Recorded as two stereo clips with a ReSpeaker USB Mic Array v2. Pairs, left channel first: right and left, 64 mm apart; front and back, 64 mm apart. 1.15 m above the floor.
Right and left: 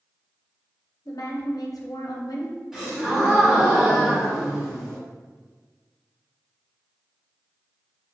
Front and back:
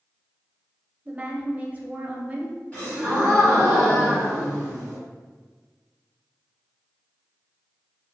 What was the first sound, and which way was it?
A woman speaking, 115° right.